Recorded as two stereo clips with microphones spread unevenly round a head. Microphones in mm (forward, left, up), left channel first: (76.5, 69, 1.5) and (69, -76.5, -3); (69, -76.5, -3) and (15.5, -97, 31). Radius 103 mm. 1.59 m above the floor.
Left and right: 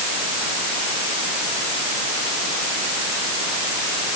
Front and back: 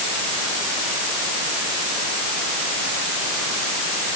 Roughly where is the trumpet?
I don't hear a trumpet.